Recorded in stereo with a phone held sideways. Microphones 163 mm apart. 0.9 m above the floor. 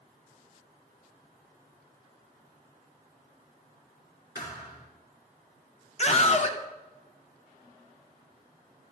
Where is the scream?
45° left (ahead or behind), 0.5 m.